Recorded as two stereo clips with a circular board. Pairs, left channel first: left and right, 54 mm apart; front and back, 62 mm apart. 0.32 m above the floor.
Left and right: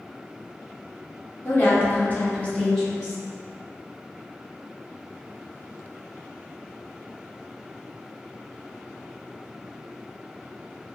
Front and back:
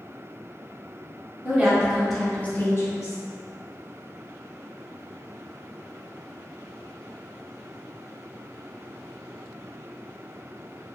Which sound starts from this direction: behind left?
A woman speaking, at 1.4 s.